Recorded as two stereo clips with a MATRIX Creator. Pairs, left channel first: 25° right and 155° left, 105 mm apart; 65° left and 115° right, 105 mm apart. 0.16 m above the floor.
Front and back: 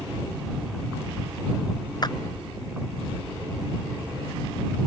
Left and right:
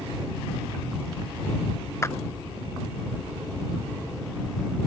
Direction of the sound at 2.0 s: 10° left.